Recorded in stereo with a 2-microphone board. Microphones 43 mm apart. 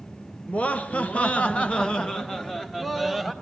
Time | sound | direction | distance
0.5 | laughter | 30° left (ahead or behind) | 1.4 m